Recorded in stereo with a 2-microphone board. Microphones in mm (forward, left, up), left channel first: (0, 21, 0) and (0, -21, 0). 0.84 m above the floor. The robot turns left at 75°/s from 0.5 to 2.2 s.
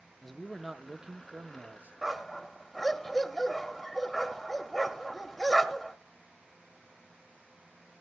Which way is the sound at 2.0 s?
10° right (ahead or behind).